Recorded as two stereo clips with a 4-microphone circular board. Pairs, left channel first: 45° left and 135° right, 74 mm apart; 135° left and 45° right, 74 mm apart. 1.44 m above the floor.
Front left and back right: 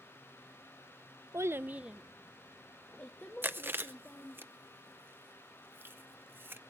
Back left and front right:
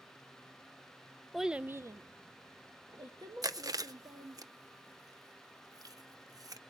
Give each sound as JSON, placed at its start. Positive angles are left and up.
{"t": 1.3, "sound": "a child speaking", "azimuth_deg": -135, "distance_m": 0.5}
{"t": 3.4, "sound": "chewing", "azimuth_deg": -75, "distance_m": 0.6}